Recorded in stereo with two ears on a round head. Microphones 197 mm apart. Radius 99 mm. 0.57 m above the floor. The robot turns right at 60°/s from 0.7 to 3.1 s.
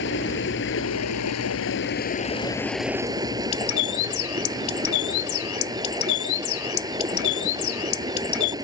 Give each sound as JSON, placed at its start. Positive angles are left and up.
{"t": 0.0, "sound": "running water", "azimuth_deg": 55}
{"t": 3.5, "sound": "a bird", "side_deg": 70}